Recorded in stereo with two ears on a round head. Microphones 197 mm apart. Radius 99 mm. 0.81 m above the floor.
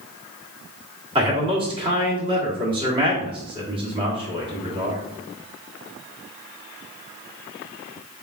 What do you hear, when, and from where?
1.1 s a man speaking: 25° right (ahead or behind), 1.5 m